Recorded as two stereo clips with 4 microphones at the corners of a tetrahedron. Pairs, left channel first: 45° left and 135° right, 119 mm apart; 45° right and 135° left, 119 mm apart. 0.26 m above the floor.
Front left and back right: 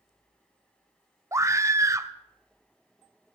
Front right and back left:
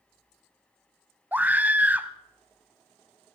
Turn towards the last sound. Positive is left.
turn(degrees=-165)